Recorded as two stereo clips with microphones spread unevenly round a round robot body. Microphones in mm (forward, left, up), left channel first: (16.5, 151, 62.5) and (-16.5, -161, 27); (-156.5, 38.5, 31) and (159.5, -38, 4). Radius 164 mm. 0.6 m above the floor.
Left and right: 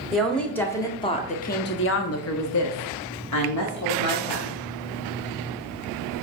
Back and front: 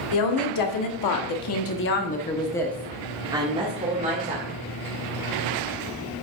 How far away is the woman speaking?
About 1.7 m.